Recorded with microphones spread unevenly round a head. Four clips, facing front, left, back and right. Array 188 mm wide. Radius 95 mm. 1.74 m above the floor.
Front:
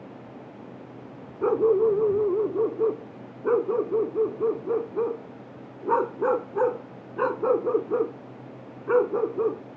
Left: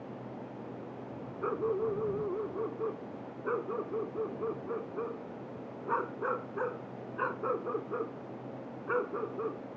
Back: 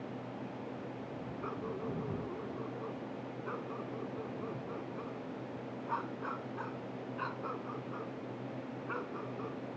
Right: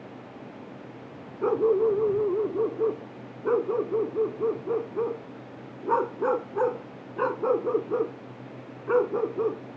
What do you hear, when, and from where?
1.4 s a dog barking: 25° right